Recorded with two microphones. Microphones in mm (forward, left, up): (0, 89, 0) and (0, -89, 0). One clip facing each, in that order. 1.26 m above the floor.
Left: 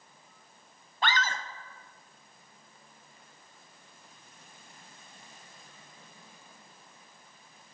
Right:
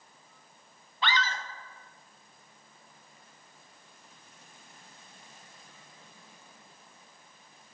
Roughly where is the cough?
I don't hear a cough.